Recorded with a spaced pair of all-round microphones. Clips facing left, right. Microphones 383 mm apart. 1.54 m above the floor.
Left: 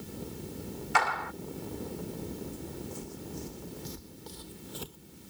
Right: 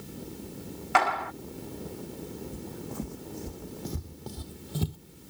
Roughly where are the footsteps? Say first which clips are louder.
Right 3 dB; right.